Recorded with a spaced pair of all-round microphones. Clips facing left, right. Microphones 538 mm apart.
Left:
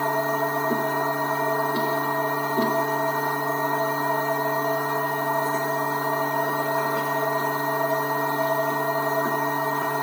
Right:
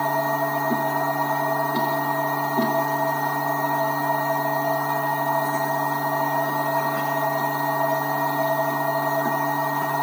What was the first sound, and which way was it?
A machine running, 20° right (ahead or behind).